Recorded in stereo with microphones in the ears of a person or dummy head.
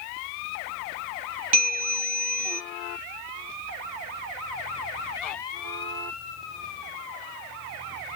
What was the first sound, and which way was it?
A bell, 30° right (ahead or behind).